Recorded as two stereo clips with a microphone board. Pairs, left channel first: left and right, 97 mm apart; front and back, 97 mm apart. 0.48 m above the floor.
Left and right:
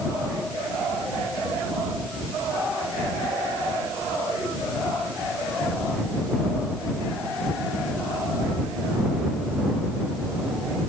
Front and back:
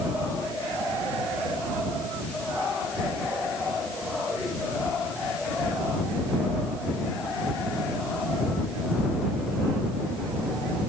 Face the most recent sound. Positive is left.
No sound to turn to.